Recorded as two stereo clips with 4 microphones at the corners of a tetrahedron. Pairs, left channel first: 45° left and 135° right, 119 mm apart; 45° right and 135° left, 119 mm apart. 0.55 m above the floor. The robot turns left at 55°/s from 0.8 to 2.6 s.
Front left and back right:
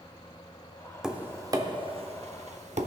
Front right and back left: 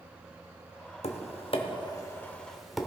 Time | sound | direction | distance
1.0 | tapping | 50° right | 0.7 m